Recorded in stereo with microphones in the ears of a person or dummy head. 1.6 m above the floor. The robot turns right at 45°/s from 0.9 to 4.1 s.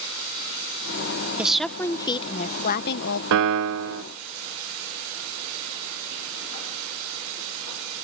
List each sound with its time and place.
1.4 s a woman speaking: 10° right; by 3.2 s 70° left
3.3 s a piano: 115° right; by 4.0 s 85° right